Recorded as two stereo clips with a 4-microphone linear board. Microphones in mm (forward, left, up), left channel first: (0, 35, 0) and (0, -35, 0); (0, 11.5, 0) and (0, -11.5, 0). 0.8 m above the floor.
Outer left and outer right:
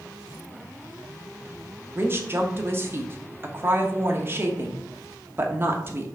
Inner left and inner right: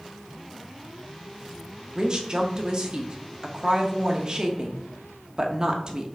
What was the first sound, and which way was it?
A woman speaking, 30° right (ahead or behind).